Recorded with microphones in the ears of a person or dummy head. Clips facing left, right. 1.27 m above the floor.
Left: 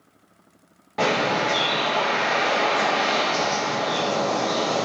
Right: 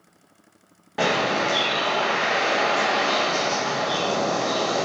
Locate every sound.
1.0 s a bird: 5° right (ahead or behind), 1.2 m